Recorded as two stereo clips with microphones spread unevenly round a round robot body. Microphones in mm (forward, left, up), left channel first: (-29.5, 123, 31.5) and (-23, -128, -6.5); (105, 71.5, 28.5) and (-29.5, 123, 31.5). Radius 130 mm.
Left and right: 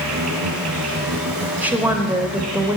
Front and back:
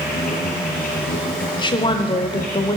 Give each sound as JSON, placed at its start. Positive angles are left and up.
{"t": 0.0, "sound": "an insect", "azimuth_deg": -60, "distance_m": 3.0}
{"t": 1.6, "sound": "a woman speaking", "azimuth_deg": -25, "distance_m": 0.9}